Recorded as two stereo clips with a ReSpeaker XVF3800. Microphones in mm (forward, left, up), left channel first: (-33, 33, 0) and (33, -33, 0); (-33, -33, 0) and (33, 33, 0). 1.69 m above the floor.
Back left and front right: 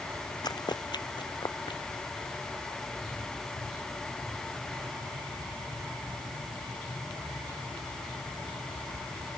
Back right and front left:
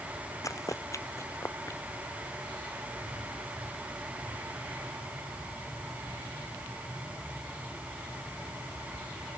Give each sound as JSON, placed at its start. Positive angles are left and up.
{"t": 0.4, "sound": "running footsteps", "azimuth_deg": 175}